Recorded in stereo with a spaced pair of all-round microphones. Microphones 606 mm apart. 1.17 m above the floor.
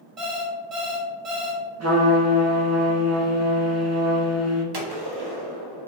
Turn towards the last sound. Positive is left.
turn(degrees=-40)  # may be behind; listen again after turning